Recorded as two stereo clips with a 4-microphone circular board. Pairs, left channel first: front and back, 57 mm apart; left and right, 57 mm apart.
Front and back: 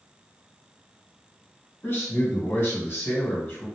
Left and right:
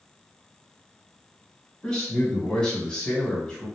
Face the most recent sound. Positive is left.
turn(degrees=20)